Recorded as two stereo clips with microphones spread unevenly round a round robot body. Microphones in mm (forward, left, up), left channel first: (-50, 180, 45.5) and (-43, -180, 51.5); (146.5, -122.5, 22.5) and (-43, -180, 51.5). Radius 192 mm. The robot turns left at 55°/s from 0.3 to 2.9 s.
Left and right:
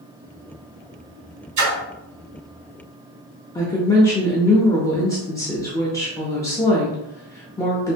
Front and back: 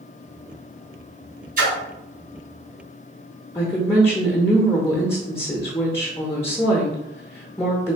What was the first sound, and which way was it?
A splash, 115° right.